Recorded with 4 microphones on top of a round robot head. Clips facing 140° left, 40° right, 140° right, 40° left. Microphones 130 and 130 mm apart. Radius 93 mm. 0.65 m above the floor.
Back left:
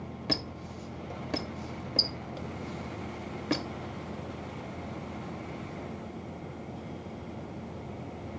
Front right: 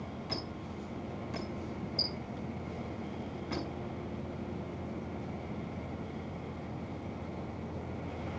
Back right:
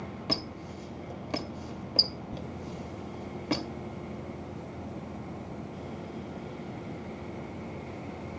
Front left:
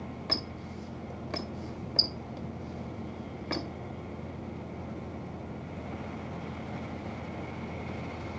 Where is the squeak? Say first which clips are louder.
Back left 4 dB, back right 5 dB; 145° left, 1.5 m.